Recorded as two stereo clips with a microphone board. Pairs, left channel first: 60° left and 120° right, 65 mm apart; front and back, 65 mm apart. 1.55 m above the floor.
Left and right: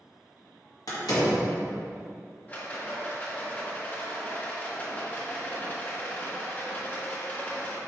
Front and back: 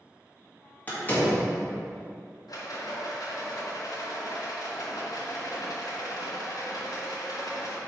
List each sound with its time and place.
0.9 s a door slam: 60° left, 2 m
2.5 s a rattle: straight ahead, 1.4 m